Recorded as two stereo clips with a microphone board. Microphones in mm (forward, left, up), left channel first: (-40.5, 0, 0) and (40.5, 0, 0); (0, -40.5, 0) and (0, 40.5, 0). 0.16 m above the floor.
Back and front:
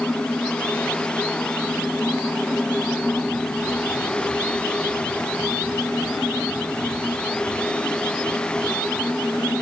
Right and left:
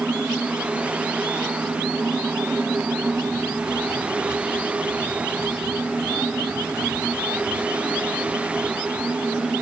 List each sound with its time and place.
Only background noise.